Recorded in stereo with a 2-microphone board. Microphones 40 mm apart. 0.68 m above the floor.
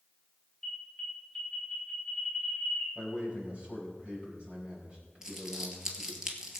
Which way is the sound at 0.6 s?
15° left (ahead or behind).